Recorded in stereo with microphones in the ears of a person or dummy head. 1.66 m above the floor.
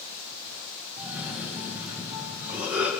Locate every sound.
1.0 s a cough: 10° right (ahead or behind), 2 m